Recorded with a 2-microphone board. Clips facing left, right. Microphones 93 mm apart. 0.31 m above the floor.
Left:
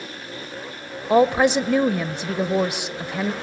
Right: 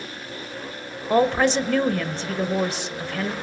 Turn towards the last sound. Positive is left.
turn(degrees=10)  # may be behind; listen again after turning